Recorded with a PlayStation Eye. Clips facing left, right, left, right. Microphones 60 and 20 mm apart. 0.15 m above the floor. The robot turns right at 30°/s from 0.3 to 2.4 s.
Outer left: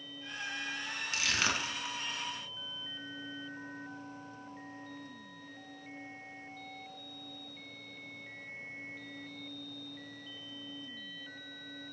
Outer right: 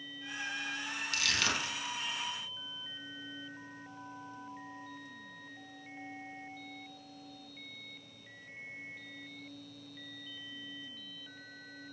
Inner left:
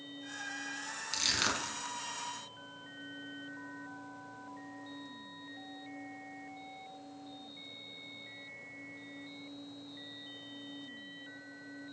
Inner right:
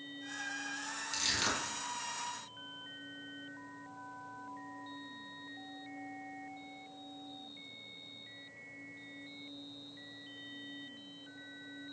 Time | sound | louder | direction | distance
1.1 | crushing | outer left 1 dB, inner left 2 dB | 25° left (ahead or behind) | 0.6 m